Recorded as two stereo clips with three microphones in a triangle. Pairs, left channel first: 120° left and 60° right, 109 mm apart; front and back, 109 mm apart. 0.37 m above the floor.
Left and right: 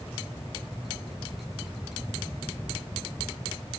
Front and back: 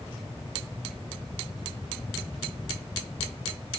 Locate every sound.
Only background noise.